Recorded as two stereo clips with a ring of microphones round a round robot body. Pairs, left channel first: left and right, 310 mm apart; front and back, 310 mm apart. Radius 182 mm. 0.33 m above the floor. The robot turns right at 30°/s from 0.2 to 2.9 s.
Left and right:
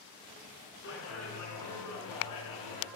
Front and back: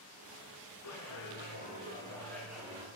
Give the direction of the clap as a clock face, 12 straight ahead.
11 o'clock.